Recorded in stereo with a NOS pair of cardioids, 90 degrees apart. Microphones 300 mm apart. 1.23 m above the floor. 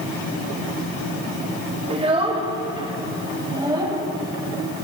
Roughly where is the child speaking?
Ahead.